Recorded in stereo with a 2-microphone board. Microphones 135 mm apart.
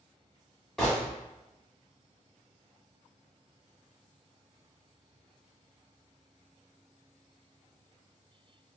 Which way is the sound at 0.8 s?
5° left (ahead or behind).